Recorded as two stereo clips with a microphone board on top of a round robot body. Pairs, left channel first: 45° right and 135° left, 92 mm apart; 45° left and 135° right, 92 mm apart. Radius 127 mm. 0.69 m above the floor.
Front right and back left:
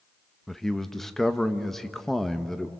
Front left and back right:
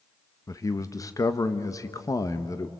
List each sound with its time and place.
0.5 s a man speaking: 40° left, 1.1 m